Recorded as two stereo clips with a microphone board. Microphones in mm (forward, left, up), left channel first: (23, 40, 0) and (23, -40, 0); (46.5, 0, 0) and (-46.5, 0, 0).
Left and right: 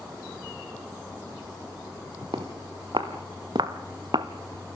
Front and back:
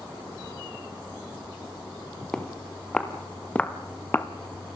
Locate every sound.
2.3 s footsteps: 85° right, 4 m; by 4.3 s 65° right, 1.8 m